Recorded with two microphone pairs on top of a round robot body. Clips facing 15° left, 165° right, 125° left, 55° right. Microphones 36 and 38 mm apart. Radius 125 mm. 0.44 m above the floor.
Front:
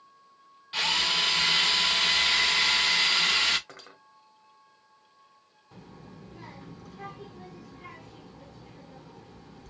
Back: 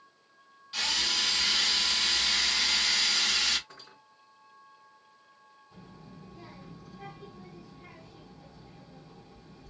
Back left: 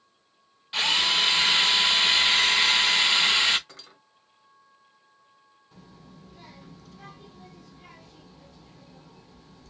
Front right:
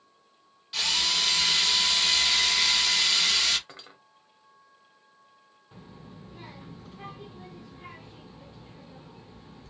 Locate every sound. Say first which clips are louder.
0.7 s a drill: front 4 dB, back left 4 dB; 70° left, 0.7 m
3.7 s cutlery clinking: front 3 dB, front right 2 dB; 5° left, 1.5 m
5.7 s a child speaking: front 3 dB, front right 3 dB; 5° left, 1.3 m